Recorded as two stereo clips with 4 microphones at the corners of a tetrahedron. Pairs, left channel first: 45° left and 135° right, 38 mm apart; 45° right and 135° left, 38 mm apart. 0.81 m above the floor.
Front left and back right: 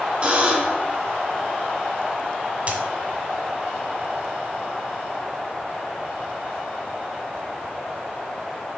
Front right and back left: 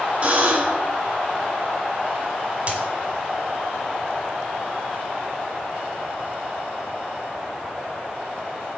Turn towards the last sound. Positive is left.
turn(degrees=-175)